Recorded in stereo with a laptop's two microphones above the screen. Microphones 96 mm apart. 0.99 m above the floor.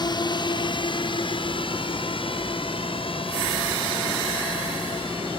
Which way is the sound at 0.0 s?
55° left (ahead or behind).